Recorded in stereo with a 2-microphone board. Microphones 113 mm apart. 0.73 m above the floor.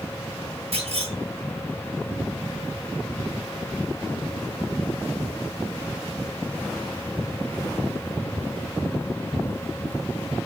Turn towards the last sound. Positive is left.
turn(degrees=-65)  # may be behind; listen again after turning